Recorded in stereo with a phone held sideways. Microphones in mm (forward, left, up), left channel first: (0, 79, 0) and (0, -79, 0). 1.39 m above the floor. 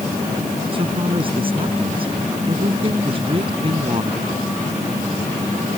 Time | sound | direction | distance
0.7 | a man speaking | 35° right (ahead or behind) | ?